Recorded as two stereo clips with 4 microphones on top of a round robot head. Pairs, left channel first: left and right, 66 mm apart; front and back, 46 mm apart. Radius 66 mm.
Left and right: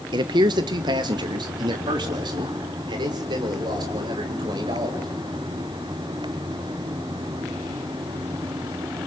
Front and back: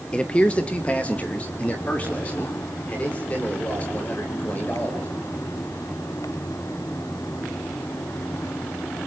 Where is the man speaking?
75° right, 1.1 m; by 5.0 s 70° right, 7.5 m.